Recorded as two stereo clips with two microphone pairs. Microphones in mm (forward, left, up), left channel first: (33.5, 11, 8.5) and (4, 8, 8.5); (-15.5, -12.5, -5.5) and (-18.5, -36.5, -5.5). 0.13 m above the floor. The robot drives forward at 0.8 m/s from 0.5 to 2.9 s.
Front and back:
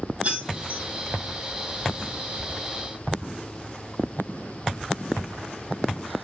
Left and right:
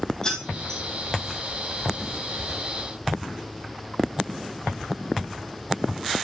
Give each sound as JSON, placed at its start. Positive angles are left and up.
{"t": 0.2, "sound": "keys jangling", "azimuth_deg": 145, "distance_m": 3.5}